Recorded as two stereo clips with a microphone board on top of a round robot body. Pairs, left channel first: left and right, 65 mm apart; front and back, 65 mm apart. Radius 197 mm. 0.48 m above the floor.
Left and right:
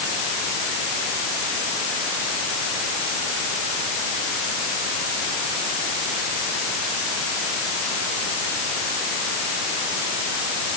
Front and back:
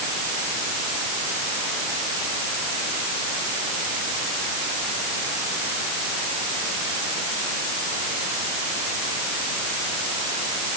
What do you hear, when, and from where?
Only background noise.